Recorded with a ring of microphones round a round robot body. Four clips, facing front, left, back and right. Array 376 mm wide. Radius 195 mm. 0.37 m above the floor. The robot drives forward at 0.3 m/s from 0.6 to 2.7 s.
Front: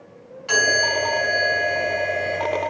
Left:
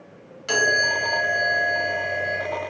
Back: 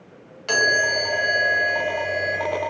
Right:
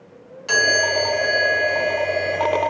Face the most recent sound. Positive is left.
turn(degrees=175)